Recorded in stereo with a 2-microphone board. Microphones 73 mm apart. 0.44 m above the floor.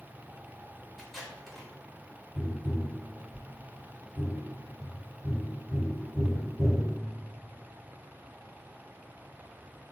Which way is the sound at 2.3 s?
45° right (ahead or behind).